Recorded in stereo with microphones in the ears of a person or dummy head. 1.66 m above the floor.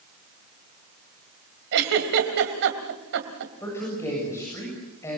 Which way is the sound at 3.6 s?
20° left (ahead or behind).